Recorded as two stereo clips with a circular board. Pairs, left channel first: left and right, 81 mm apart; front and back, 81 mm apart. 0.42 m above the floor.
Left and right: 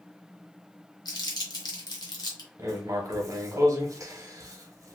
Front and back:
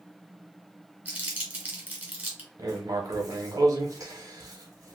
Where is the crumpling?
110° left, 1.1 m.